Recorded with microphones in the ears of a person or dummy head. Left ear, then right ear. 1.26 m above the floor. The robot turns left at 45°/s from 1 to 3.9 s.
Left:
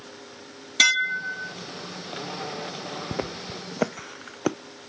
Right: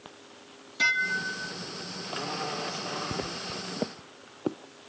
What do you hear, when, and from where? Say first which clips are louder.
0.8 s dishes clattering: left 5 dB; 55° left (ahead or behind); by 1.5 s 30° left (ahead or behind)
3.1 s footsteps: left 2 dB; 25° left (ahead or behind); by 4.6 s 65° left (ahead or behind)